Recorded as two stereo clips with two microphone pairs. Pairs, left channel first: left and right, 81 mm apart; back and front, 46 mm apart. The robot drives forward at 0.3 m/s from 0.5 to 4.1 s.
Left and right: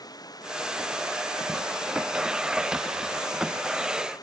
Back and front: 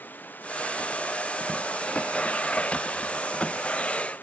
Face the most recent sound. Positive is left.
turn(degrees=130)